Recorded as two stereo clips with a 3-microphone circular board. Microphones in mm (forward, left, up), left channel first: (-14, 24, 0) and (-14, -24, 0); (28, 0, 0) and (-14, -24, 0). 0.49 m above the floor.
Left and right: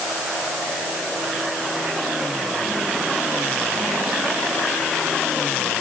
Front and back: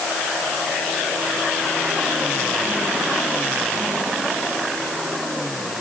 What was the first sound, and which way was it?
Only background noise.